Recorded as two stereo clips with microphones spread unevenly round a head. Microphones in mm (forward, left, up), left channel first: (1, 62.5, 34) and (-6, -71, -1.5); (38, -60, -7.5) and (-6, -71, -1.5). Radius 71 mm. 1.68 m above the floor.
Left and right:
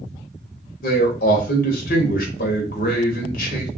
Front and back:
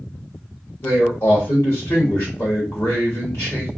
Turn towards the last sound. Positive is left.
turn(degrees=70)